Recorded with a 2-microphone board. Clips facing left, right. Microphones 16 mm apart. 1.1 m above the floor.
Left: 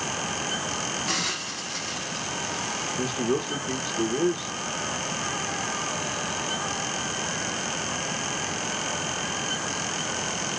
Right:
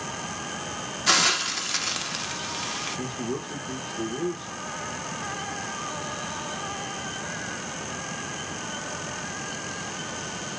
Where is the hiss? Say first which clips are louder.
Right 11 dB; 60° right (ahead or behind), 1.1 m.